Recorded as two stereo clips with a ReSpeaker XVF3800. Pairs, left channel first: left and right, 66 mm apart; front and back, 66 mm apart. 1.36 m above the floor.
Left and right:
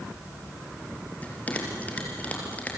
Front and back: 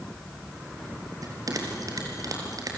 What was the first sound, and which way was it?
A bell, 155° left.